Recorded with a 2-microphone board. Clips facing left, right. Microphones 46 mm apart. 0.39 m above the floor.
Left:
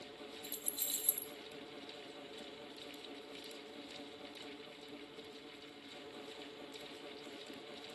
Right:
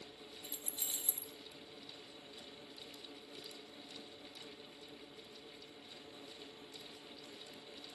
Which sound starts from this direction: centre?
Keys jangling, at 0.4 s.